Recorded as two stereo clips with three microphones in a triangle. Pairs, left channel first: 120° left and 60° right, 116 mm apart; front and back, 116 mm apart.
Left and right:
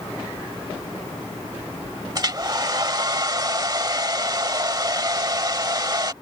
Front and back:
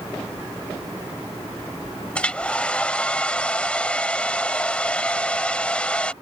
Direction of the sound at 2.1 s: 70° right.